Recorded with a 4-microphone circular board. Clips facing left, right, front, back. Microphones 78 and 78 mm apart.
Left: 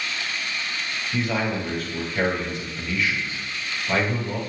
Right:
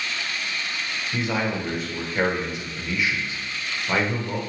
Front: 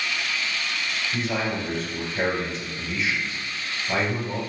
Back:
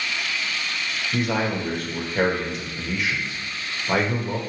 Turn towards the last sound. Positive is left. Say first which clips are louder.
# left 1 dB, back 4 dB
turn(degrees=-160)